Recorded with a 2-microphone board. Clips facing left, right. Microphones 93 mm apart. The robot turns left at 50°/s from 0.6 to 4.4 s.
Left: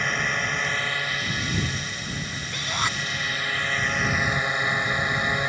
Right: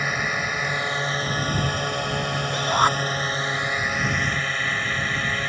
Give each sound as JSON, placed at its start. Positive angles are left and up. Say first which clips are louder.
{"t": 0.0, "sound": "a drone", "louder": "right 1 dB", "azimuth_deg": -10}
{"t": 2.5, "sound": "a shout", "louder": "right 9 dB", "side_deg": -30}